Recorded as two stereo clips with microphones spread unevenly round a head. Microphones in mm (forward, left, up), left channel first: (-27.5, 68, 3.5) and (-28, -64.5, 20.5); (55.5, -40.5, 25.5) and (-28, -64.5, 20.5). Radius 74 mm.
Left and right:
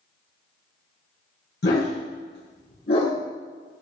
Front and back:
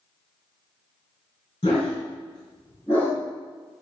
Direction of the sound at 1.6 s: 70° left.